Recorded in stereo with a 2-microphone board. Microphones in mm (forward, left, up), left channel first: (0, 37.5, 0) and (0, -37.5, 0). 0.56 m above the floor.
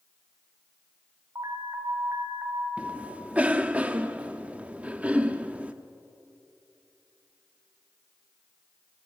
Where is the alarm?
40° right (ahead or behind), 1.7 m.